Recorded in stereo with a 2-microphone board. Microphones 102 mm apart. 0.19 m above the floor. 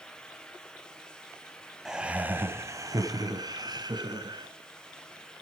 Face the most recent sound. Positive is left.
turn(degrees=-45)  # may be behind; listen again after turning